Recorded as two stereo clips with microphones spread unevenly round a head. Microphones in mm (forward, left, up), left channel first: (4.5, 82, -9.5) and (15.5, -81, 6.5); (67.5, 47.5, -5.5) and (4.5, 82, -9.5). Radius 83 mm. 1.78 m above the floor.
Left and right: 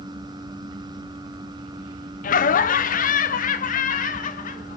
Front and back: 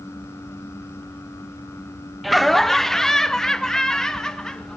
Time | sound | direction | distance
2.2 | laughter | 60° left | 0.7 m